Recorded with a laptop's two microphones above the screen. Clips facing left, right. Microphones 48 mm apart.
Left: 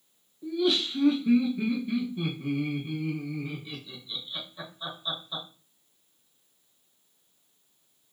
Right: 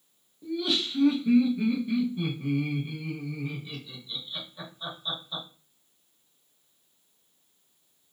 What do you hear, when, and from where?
0.4 s laughter: centre (ahead or behind), 0.8 m